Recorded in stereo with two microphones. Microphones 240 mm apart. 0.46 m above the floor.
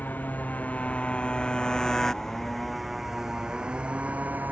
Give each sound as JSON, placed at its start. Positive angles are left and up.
{"t": 0.0, "sound": "a motorcycle", "side_deg": 10}